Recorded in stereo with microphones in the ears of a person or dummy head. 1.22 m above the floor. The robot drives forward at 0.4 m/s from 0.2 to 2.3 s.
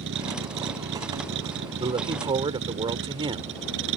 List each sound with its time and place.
0.0 s a vehicle: 65° right (ahead or behind); by 4.0 s 70° right (ahead or behind)
1.8 s a woman speaking: 20° right (ahead or behind)